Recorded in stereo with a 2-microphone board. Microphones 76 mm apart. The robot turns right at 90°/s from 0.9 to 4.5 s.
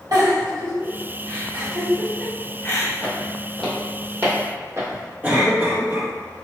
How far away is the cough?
About 1.6 m.